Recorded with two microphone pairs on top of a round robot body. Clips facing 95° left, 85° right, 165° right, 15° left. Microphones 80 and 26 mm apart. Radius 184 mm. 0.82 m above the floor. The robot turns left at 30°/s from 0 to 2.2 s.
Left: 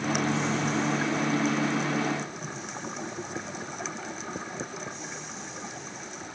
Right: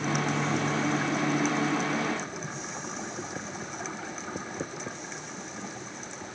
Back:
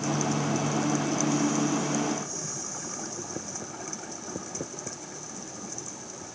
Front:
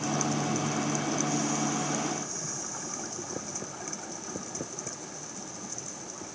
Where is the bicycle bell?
I don't hear a bicycle bell.